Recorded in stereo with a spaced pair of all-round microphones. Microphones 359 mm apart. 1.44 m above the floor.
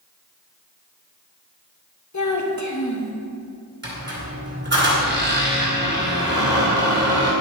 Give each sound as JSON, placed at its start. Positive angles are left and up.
{"t": 2.1, "sound": "a child speaking", "side_deg": 50, "distance_m": 1.0}
{"t": 3.8, "sound": "a squeak", "side_deg": -30, "distance_m": 2.5}